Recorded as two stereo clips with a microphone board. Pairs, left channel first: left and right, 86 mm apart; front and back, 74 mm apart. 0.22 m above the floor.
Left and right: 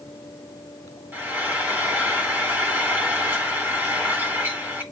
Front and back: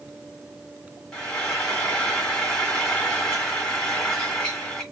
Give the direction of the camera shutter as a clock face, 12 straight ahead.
No camera shutter in this recording.